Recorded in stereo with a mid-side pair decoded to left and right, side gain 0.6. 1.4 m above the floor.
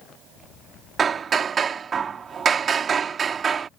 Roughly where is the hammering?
Ahead right.